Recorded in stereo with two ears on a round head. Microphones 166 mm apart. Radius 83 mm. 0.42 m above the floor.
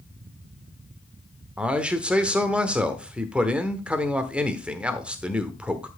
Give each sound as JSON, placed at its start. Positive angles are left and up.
{"t": 1.6, "sound": "a man speaking", "side_deg": -5, "distance_m": 1.0}